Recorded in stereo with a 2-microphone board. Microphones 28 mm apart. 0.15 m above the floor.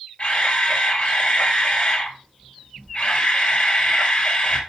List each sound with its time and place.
0.2 s a camera shutter: 50° left (ahead or behind), 3 m